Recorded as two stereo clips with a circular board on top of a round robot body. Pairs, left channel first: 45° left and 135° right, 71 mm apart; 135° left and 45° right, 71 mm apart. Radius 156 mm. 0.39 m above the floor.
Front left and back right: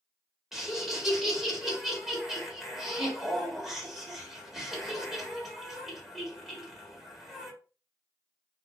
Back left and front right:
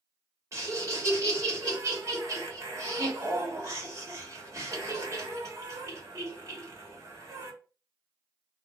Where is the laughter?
55° right, 1.8 m.